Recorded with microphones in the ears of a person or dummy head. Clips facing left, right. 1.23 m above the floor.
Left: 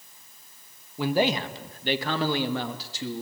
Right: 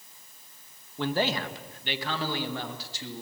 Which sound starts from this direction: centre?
A man speaking, at 1.0 s.